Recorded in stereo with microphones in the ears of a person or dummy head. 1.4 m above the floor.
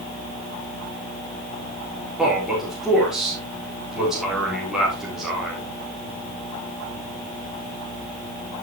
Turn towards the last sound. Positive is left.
turn(degrees=-5)  # may be behind; listen again after turning